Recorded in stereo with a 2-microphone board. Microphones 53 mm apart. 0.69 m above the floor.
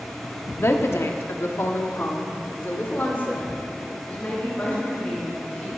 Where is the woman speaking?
50° left (ahead or behind), 1.2 m; by 5.7 s 25° left (ahead or behind), 4 m.